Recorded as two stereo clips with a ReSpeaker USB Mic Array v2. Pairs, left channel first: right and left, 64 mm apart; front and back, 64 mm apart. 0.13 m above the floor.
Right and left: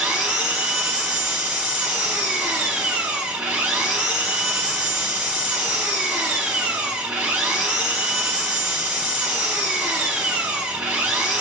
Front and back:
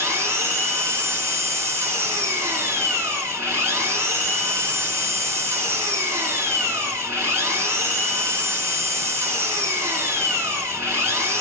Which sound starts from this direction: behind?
An engine running, at 0.0 s.